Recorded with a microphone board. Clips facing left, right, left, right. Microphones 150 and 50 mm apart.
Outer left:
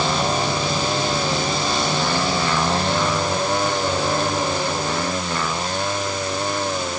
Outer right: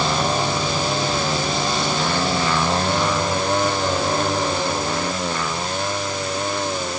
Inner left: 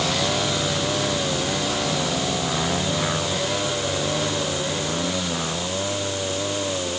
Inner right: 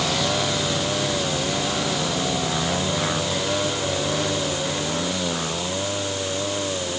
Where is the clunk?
No clunk in this recording.